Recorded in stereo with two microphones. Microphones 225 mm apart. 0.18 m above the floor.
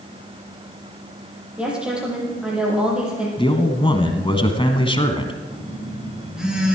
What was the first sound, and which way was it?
A woman speaking, 5° right (ahead or behind).